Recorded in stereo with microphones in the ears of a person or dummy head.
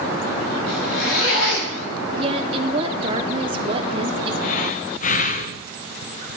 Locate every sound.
0.7 s a zipper: 90° left, 5.5 m
2.2 s a woman speaking: 25° right (ahead or behind), 0.6 m
4.4 s breathing: 45° left (ahead or behind), 0.5 m